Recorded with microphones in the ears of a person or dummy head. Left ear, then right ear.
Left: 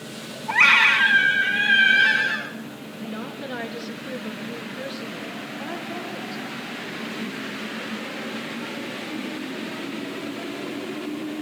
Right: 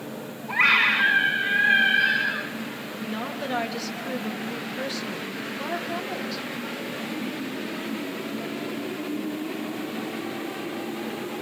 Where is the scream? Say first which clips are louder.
Left 4 dB; 75° left (ahead or behind), 6 m.